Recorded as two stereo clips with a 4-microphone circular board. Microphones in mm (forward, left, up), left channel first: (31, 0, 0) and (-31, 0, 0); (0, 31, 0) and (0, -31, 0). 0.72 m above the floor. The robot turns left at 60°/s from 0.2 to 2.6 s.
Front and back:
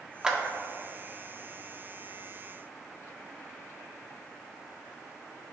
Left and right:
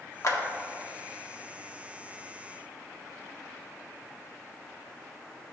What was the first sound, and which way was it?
A clap, 105° left.